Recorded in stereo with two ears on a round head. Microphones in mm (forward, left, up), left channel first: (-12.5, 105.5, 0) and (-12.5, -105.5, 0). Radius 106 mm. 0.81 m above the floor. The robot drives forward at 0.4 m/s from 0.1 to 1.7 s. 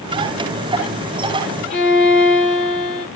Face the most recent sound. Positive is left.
turn(degrees=40)  # may be behind; listen again after turning